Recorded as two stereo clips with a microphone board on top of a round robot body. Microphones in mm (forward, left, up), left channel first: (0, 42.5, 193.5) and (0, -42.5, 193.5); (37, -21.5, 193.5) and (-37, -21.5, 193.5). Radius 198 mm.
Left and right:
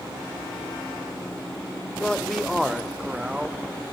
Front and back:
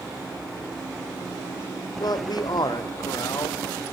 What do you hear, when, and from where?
2.0 s a man speaking: 10° left, 2.5 m; by 3.6 s 15° right, 2.5 m